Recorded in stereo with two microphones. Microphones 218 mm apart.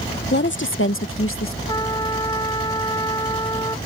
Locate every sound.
0.3 s a woman speaking: 50° left (ahead or behind); by 1.6 s 65° left (ahead or behind)
1.7 s a trumpet: 20° left (ahead or behind)